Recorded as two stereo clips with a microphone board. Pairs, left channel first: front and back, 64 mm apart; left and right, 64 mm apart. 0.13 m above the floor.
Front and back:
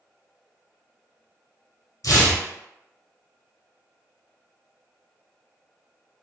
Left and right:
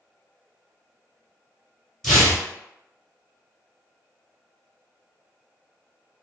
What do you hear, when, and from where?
2.0 s tearing paper: 5° left, 1.2 m